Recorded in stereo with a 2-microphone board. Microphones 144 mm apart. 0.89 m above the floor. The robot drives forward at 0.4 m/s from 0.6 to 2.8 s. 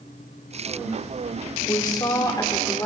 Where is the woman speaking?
30° left (ahead or behind), 2.5 m; by 2.9 s 25° left (ahead or behind), 3 m.